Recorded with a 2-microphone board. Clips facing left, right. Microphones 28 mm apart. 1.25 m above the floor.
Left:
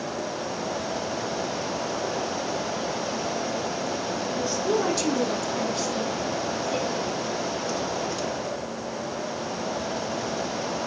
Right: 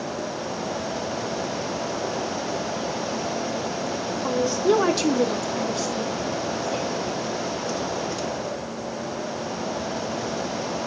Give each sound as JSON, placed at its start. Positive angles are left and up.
{"t": 4.2, "sound": "a woman speaking", "side_deg": -65, "distance_m": 1.0}